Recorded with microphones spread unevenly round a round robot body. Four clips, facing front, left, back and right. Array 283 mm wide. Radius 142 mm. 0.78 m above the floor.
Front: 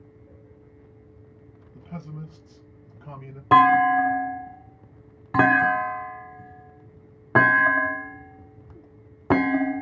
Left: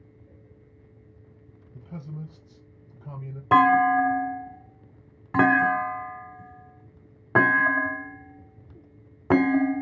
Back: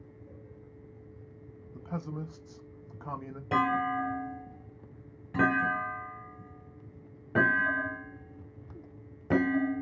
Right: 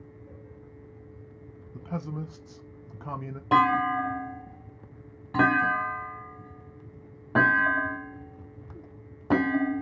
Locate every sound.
1.7 s a man speaking: 115° right, 0.7 m
3.5 s a clunk: 10° right, 0.8 m